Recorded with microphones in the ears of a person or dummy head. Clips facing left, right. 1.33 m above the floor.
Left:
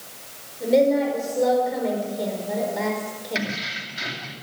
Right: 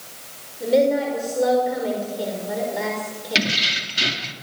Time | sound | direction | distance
0.6 | a woman speaking | centre (ahead or behind) | 5.5 m
3.4 | keys jangling | 45° right (ahead or behind) | 2 m